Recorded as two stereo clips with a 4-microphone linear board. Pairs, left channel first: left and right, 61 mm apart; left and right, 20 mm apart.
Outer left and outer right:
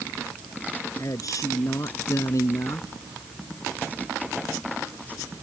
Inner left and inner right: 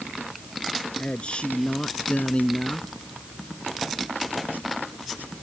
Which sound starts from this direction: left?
A man speaking, at 1.0 s.